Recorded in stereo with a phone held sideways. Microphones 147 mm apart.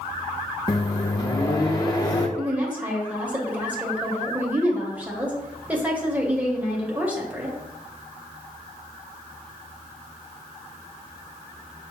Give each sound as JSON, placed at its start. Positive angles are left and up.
{"t": 0.7, "sound": "a microwave", "side_deg": 25, "distance_m": 0.6}
{"t": 2.4, "sound": "a woman speaking", "side_deg": -10, "distance_m": 0.8}